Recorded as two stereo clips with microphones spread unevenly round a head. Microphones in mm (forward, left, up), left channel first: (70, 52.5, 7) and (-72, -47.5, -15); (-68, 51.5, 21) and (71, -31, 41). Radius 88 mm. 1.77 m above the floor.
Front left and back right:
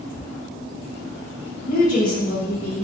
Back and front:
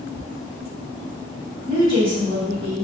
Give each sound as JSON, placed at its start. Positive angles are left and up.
{"t": 1.7, "sound": "a woman speaking", "azimuth_deg": 0, "distance_m": 1.0}